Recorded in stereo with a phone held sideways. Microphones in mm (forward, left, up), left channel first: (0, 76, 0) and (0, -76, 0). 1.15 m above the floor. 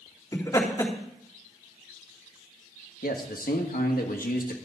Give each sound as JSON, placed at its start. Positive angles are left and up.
{"t": 0.3, "sound": "laughter", "side_deg": 20, "distance_m": 3.5}
{"t": 3.0, "sound": "a man speaking", "side_deg": 75, "distance_m": 1.6}